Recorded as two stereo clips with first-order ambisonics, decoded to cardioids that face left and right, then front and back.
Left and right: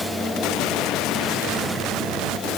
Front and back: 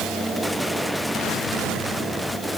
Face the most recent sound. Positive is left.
No sound to turn to.